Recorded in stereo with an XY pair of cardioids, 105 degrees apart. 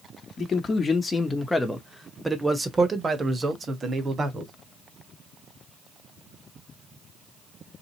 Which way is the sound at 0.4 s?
45° left.